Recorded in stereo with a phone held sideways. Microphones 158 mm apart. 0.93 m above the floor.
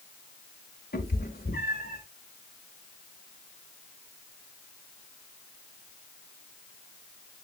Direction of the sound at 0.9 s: 85° left.